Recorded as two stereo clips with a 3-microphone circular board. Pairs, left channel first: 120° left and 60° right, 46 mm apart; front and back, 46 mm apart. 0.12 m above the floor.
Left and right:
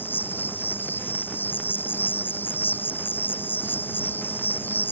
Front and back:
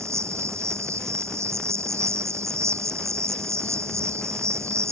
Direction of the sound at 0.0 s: 170° left.